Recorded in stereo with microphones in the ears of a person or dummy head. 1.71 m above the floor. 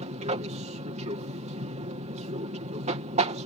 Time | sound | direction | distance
0.0 | an aircraft | 35° right (ahead or behind) | ?